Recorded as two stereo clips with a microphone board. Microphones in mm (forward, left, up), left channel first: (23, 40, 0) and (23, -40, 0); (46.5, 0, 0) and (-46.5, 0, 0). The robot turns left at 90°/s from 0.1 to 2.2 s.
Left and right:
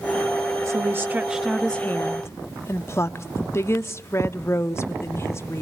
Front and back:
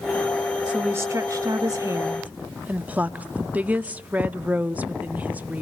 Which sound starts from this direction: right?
A woman speaking, at 0.7 s.